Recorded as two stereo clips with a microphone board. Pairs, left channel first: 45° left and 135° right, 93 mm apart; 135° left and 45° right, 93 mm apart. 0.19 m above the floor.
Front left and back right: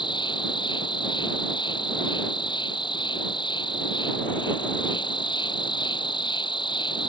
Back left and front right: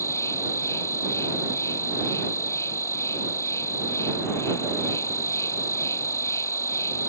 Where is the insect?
75° left.